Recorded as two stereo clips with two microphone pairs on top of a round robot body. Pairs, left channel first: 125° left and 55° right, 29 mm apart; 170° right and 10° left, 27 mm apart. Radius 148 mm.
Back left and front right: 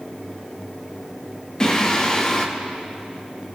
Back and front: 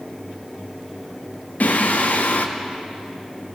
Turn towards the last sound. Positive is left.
turn(degrees=-170)